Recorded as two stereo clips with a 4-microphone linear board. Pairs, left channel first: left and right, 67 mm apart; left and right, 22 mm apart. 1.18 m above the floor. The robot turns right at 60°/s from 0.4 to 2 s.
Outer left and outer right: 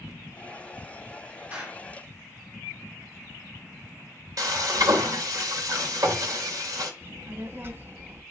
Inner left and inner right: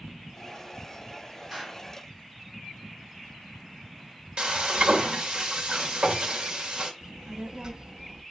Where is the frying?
60° right (ahead or behind), 2.5 m.